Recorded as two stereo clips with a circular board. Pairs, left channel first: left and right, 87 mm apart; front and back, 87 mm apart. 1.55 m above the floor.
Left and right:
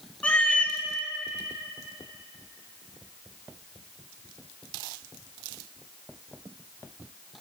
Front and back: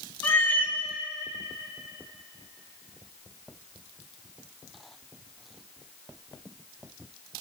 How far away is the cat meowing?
About 0.9 m.